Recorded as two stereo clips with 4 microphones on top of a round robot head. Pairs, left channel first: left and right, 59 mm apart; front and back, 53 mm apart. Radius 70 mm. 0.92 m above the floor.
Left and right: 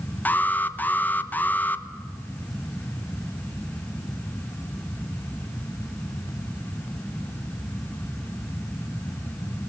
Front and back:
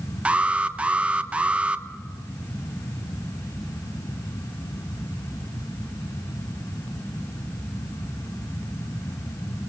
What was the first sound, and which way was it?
An alarm, 130° left.